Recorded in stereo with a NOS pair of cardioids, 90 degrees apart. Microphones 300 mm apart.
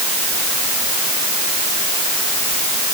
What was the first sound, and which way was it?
Only background noise.